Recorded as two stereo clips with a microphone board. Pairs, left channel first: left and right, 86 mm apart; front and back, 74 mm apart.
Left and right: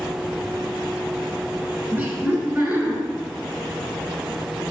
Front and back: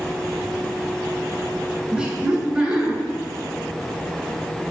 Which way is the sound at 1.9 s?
125° right.